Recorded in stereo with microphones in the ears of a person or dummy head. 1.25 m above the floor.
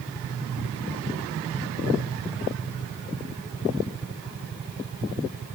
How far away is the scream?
I don't hear a scream.